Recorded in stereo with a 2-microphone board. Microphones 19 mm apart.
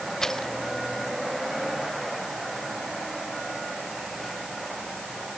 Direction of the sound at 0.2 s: 25° left (ahead or behind).